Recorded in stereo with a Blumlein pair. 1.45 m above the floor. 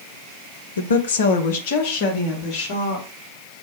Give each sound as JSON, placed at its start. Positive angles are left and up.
{"t": 0.8, "sound": "a woman speaking", "azimuth_deg": 70, "distance_m": 0.5}